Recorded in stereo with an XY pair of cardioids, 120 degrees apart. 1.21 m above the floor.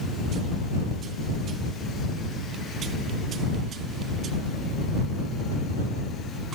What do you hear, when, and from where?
Only background noise.